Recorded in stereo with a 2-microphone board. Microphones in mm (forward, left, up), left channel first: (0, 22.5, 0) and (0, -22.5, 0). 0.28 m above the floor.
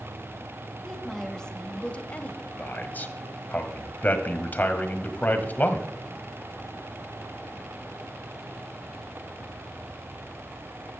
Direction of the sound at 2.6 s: 40° left (ahead or behind).